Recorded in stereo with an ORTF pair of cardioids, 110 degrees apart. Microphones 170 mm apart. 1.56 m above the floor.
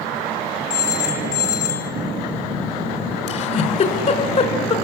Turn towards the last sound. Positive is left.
turn(degrees=45)